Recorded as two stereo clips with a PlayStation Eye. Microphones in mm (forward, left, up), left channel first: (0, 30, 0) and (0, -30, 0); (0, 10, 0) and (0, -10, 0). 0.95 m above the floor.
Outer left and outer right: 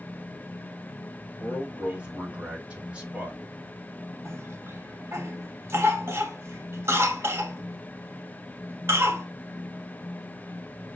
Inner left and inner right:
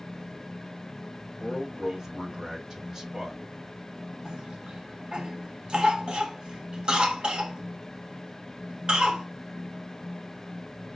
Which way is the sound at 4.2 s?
50° right (ahead or behind).